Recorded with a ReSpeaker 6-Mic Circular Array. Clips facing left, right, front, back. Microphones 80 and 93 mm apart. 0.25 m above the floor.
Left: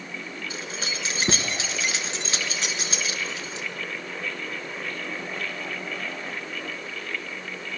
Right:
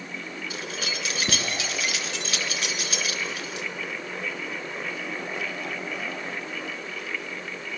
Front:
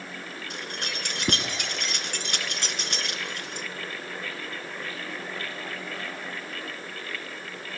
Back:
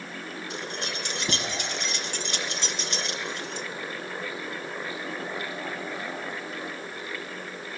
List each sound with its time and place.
0.5 s keys jangling: 30° left, 2.5 m